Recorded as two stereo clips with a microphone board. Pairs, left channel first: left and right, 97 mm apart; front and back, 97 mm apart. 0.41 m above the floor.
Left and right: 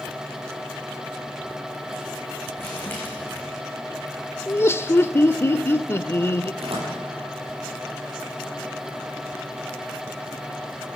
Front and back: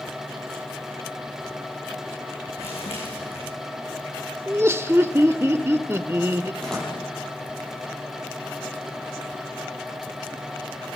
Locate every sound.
2.6 s crumpling: 20° left, 8 m
4.5 s laughter: 135° left, 0.9 m
6.6 s a door slam: 80° right, 7.5 m